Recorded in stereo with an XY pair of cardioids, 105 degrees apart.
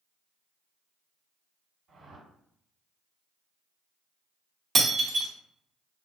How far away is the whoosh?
About 1.9 m.